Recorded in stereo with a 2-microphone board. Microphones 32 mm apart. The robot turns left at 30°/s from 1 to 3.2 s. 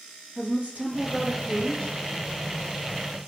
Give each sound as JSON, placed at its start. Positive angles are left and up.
{"t": 0.3, "sound": "a woman speaking", "side_deg": -40, "distance_m": 5.0}